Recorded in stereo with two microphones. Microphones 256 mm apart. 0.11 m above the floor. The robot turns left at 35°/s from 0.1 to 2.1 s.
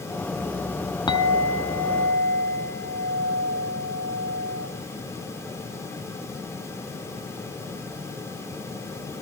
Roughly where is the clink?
Centre.